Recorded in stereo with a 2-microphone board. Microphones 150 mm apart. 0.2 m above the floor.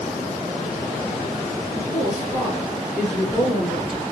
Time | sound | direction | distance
1.8 | a woman speaking | 25° right (ahead or behind) | 2.5 m